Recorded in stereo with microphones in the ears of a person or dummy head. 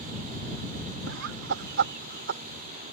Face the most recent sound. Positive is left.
turn(degrees=-50)  # may be behind; listen again after turning